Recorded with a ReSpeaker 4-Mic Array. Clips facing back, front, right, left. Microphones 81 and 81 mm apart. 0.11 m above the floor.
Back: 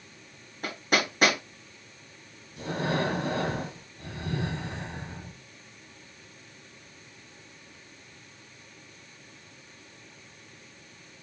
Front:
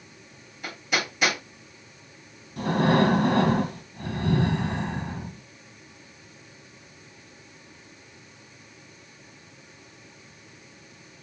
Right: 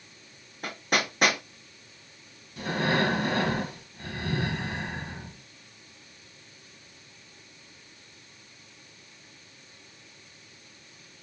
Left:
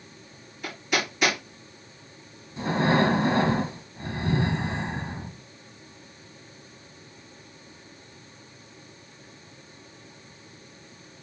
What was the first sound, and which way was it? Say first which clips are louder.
Hammering: back 2 dB, even; 135° right.